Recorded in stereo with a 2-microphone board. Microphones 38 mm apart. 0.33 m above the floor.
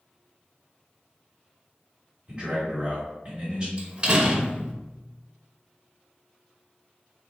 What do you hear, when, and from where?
2.3 s a man speaking: 25° right (ahead or behind), 1.7 m
3.8 s a door slam: 30° right (ahead or behind), 0.6 m